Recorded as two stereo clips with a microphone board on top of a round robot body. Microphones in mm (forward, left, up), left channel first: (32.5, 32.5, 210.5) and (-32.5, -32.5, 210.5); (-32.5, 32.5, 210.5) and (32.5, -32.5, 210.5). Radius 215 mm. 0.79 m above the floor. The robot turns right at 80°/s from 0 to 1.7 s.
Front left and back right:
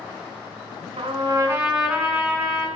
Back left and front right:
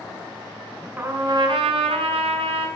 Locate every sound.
1.0 s a trumpet: 110° right, 2.5 m; by 2.7 s 50° right, 2.5 m